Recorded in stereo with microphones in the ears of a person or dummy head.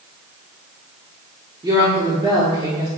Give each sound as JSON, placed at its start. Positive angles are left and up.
{"t": 1.6, "sound": "a woman speaking", "side_deg": -20, "distance_m": 0.7}